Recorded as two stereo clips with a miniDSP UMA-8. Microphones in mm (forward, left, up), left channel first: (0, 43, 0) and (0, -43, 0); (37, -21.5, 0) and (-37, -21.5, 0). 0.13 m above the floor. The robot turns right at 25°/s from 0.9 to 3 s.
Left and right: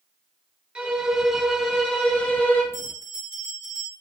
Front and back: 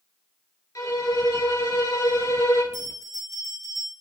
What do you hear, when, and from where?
0.8 s a violin: 15° right, 2 m; by 2.6 s 30° left, 2 m
2.7 s a bell: 35° left, 2.5 m; by 3.9 s 40° left, 2.5 m